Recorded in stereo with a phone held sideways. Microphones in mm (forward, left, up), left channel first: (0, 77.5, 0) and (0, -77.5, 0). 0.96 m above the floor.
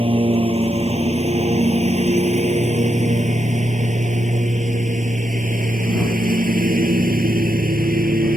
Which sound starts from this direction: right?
A lawn mower, at 0.0 s.